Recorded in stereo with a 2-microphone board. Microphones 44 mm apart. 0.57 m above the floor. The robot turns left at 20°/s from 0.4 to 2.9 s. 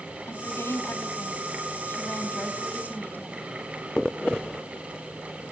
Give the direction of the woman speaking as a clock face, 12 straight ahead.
9 o'clock.